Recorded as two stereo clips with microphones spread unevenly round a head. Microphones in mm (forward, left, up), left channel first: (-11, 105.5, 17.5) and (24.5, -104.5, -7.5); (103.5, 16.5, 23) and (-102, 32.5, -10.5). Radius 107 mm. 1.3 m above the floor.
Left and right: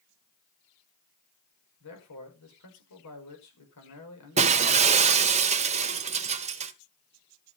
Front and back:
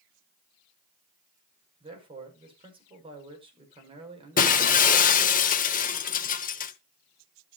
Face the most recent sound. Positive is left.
turn(degrees=-25)